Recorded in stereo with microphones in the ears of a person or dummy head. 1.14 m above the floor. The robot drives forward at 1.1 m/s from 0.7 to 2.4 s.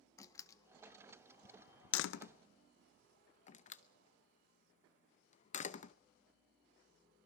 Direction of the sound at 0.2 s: 20° left (ahead or behind).